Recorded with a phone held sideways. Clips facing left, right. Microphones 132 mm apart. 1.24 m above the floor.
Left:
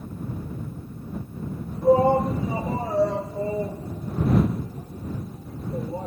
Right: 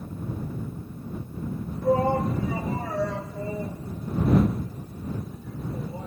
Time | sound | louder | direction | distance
1.8 | a shout | left 5 dB | 25° left (ahead or behind) | ?